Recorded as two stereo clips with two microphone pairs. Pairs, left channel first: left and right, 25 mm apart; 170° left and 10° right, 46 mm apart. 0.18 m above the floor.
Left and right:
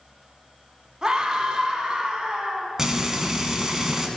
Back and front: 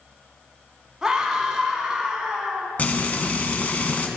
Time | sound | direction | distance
1.0 | a scream | 70° right | 1.6 m
2.8 | frying | 160° right | 1.0 m